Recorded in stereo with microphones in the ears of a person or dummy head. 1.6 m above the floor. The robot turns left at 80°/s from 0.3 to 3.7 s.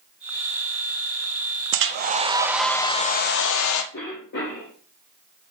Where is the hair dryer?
110° right, 0.8 m; by 3.8 s 95° left, 0.8 m.